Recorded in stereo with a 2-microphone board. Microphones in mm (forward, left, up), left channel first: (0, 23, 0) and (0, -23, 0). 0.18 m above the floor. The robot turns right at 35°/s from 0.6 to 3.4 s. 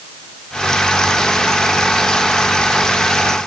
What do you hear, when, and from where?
Only background noise.